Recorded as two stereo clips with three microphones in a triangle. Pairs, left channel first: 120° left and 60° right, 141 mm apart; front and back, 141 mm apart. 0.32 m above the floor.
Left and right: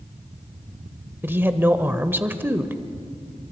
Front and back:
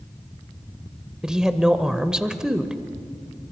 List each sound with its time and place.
1.2 s a woman speaking: 105° right, 0.9 m